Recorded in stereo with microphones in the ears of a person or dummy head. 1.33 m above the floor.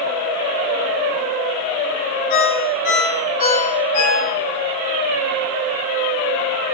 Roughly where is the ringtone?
Left.